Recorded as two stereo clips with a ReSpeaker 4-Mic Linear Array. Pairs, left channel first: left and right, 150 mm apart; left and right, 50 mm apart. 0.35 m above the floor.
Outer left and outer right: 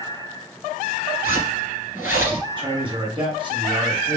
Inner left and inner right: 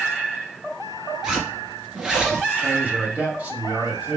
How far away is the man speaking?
About 2.5 m.